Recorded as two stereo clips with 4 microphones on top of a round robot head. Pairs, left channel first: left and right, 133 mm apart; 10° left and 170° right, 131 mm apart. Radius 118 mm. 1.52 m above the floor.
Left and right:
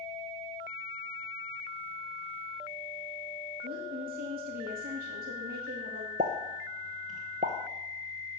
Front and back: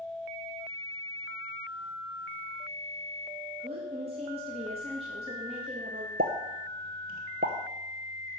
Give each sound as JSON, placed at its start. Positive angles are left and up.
{"t": 3.6, "sound": "a woman speaking", "azimuth_deg": -115, "distance_m": 1.7}
{"t": 6.2, "sound": "a pop", "azimuth_deg": -140, "distance_m": 0.6}